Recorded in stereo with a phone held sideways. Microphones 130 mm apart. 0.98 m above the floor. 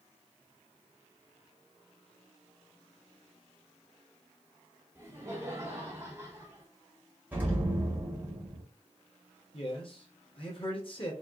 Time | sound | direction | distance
5.0 | laughter | 20° right (ahead or behind) | 2.5 m
7.3 | an explosion | 15° right (ahead or behind) | 1.7 m
9.5 | a man speaking | 45° left (ahead or behind) | 1.5 m